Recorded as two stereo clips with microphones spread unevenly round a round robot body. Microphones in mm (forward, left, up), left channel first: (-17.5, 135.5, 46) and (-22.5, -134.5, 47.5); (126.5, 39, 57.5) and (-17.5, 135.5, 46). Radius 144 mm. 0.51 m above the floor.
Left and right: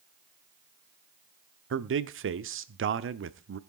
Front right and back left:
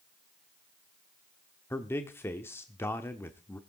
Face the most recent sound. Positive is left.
turn(degrees=-110)